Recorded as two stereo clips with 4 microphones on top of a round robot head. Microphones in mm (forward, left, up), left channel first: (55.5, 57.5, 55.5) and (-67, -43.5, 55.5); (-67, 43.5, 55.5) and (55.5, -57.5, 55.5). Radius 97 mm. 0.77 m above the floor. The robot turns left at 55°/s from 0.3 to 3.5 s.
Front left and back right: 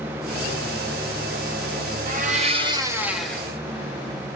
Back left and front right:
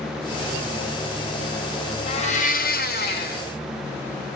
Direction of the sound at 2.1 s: 165° right.